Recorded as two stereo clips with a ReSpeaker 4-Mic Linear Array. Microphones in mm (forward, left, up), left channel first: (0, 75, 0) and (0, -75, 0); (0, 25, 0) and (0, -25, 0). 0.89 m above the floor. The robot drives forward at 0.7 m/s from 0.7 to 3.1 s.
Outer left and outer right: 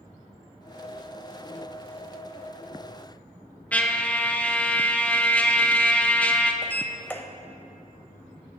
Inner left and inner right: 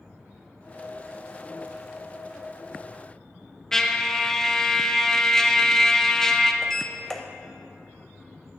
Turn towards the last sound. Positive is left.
turn(degrees=10)  # may be behind; listen again after turning